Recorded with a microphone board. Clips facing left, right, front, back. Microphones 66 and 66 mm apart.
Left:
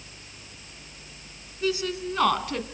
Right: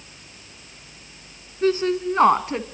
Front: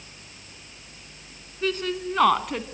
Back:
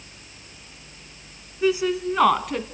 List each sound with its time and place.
1.6 s a woman speaking: 105° right, 1.6 m; by 2.6 s 85° right, 1.3 m